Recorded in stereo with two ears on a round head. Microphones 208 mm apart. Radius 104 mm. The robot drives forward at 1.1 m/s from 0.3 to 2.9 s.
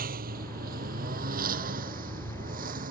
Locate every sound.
0.0 s a lawn mower: 40° right (ahead or behind)